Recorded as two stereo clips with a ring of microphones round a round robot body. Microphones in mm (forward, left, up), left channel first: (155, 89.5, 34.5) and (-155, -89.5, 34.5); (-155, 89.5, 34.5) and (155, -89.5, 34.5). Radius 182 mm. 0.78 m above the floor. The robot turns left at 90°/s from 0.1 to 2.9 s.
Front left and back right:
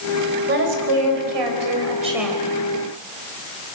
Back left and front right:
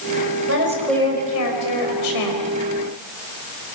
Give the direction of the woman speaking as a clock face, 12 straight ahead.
3 o'clock.